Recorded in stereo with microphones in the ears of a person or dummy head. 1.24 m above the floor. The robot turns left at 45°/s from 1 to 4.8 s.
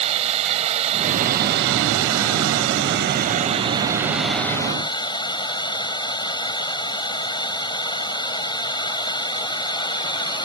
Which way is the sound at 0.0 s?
35° right.